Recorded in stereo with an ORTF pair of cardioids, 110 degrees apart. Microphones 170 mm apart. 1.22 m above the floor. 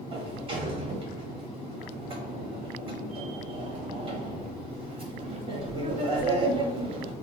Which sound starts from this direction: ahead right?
A sliding door, at 0.1 s.